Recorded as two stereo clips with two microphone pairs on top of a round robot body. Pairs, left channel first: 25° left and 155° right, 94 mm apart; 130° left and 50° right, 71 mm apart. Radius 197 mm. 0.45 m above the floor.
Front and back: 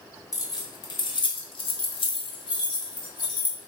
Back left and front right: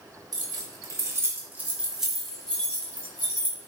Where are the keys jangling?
30° right, 1.1 m; by 3.7 s 70° left, 1.6 m.